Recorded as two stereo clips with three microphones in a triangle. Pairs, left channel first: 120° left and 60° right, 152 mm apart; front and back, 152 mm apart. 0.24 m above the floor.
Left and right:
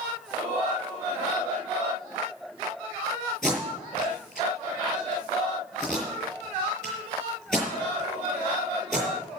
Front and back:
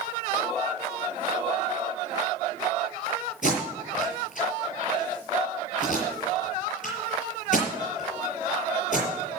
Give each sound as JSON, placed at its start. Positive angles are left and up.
{"t": 3.4, "sound": "tape being pulled", "azimuth_deg": 30, "distance_m": 7.0}